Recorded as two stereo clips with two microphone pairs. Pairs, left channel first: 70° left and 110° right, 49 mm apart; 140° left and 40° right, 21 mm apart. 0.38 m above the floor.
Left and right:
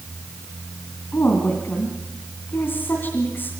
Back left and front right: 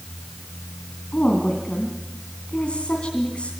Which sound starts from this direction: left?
A woman speaking, at 1.1 s.